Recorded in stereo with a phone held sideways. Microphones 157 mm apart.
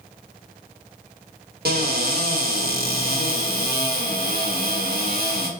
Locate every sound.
1.6 s a cupboard door: 70° right (ahead or behind), 1.0 m